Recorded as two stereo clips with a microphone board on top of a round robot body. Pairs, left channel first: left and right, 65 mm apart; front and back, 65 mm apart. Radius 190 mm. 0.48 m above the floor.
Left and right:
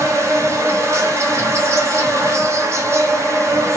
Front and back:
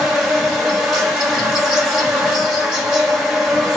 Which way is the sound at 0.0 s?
95° right.